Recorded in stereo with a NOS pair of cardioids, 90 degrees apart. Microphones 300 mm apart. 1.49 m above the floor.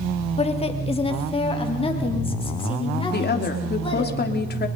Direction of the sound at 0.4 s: 20° left.